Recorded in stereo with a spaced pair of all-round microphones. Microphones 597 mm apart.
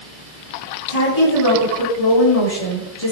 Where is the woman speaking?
80° left, 9.5 m.